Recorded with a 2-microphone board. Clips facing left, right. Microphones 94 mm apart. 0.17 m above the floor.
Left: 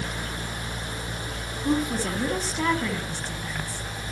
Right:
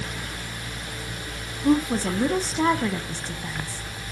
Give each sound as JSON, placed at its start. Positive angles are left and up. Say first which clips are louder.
{"t": 1.6, "sound": "a woman speaking", "louder": "right 4 dB", "side_deg": -20, "distance_m": 1.2}